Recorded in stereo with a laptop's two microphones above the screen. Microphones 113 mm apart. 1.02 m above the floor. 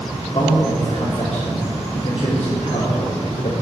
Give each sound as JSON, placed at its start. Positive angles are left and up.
{"t": 0.3, "sound": "a man speaking", "side_deg": 50, "distance_m": 2.0}